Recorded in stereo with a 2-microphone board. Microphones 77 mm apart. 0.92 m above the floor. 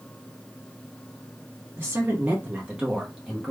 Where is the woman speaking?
25° right (ahead or behind), 1.0 m; by 3.5 s 5° left (ahead or behind), 0.9 m.